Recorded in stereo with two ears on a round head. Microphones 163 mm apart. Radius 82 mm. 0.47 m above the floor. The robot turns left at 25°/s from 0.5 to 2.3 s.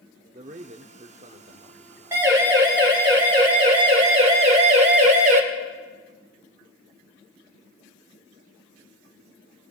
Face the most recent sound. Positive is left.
turn(degrees=-45)  # may be behind; listen again after turning